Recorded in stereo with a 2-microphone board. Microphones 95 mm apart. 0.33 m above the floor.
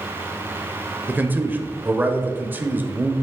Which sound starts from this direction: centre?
A man speaking, at 1.1 s.